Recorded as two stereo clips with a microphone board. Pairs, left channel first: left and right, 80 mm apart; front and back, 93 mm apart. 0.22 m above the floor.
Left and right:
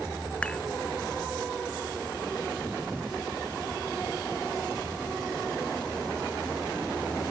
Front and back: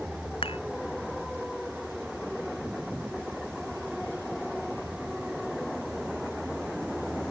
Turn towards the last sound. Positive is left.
turn(degrees=15)